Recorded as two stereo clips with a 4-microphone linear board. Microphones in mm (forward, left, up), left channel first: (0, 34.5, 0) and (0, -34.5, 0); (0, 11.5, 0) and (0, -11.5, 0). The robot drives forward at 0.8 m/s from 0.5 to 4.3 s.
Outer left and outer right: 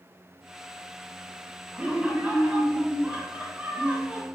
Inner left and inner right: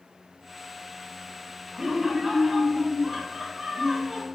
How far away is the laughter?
About 2 m.